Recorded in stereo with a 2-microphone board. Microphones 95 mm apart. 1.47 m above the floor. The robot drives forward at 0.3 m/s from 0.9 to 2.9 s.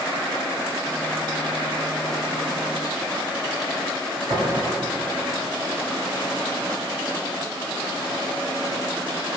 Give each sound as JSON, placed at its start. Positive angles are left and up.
{"t": 4.3, "sound": "tapping", "side_deg": -40, "distance_m": 1.3}